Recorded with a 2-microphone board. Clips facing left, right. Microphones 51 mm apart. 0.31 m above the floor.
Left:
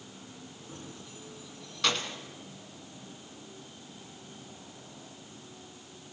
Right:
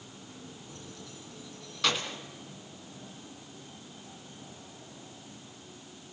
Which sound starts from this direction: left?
Keys jangling, at 0.7 s.